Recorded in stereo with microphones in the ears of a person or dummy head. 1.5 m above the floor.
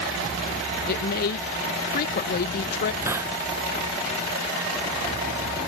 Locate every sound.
0.9 s a woman speaking: 50° left (ahead or behind)
3.0 s a hiss: 20° right (ahead or behind)